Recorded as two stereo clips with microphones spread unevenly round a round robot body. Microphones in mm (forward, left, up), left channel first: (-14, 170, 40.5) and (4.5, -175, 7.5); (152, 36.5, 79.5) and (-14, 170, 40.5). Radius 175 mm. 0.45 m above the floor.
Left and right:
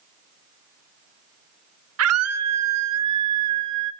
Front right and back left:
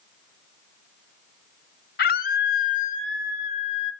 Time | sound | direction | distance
2.0 | a scream | 75° right | 1.8 m